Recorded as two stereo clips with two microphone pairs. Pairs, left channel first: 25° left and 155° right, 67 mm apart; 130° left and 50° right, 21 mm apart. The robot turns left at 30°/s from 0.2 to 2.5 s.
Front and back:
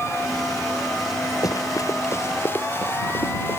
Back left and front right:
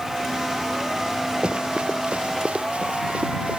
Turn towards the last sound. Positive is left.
turn(degrees=-35)